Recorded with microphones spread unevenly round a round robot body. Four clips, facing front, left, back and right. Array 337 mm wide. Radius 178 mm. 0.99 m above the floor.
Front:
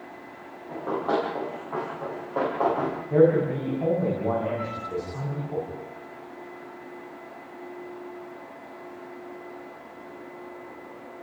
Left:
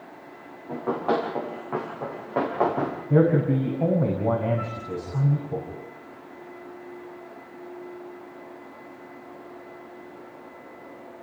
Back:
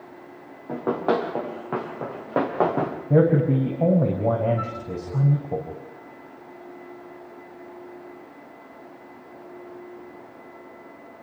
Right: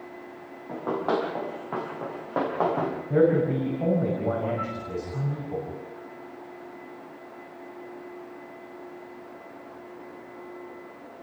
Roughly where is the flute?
Behind left.